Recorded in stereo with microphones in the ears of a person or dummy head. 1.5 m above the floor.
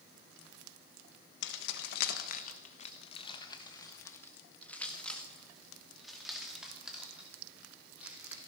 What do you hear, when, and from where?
1.4 s keys jangling: 70° left (ahead or behind), 1.1 m; by 8.4 s 10° right (ahead or behind), 3.5 m